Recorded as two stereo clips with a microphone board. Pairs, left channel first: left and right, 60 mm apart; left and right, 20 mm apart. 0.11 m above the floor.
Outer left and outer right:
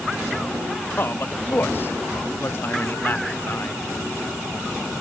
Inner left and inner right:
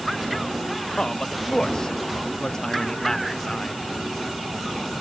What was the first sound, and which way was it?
A man speaking, 40° left (ahead or behind).